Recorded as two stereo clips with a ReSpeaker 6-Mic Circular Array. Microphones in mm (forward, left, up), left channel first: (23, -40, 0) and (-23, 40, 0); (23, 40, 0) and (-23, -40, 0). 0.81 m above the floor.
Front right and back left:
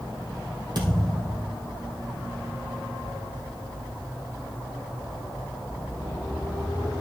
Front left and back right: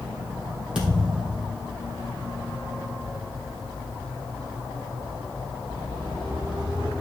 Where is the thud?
160° left, 3 m.